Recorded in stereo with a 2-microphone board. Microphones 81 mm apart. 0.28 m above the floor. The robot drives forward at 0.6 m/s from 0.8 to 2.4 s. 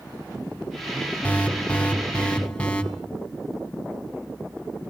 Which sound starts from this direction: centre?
An alarm, at 1.2 s.